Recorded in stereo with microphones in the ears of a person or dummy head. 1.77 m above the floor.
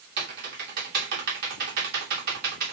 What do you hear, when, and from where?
0.2 s typing on a keyboard: 60° right (ahead or behind), 2.5 m